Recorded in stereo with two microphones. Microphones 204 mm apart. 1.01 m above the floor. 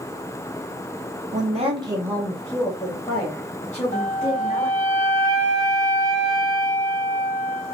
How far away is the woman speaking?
About 0.9 m.